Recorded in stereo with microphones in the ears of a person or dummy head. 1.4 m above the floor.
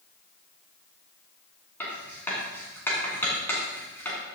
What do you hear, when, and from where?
1.8 s writing: 10° left (ahead or behind), 3 m